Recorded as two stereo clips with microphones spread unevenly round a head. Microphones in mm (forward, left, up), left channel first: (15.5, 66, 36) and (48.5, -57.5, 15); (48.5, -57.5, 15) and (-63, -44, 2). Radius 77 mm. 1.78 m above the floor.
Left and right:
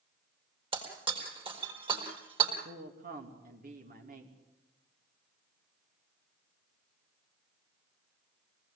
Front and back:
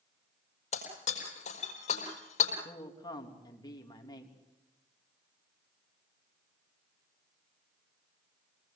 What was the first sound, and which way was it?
Breaking glass, 20° right.